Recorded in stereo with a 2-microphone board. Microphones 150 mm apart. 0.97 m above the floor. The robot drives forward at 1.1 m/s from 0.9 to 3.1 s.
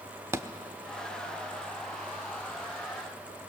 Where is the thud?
20° right (ahead or behind), 0.8 m.